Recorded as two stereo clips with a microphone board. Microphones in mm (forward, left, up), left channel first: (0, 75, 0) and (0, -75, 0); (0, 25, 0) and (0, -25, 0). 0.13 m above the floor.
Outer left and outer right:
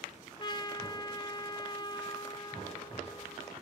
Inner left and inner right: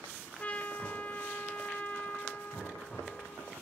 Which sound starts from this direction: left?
A trumpet, at 0.4 s.